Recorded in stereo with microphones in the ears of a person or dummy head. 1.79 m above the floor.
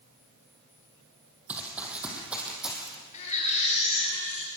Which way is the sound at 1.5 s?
10° right (ahead or behind).